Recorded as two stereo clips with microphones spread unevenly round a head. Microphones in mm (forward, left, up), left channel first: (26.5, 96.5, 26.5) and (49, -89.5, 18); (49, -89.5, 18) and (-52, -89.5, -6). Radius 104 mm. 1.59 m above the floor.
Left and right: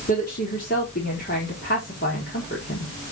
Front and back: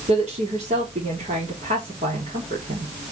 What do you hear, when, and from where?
0.1 s a woman speaking: 150° left, 4 m